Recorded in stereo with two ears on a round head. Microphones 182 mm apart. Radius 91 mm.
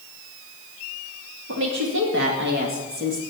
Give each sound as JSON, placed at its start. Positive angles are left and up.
{"t": 1.5, "sound": "a woman speaking", "side_deg": -70, "distance_m": 2.5}